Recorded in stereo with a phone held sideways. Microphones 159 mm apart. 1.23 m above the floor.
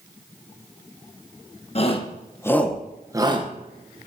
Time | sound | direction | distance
1.8 | a shout | 40° left (ahead or behind) | 1.0 m